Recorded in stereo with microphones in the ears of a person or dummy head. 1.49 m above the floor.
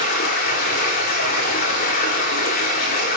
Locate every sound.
0.0 s running water: 50° left (ahead or behind), 3 m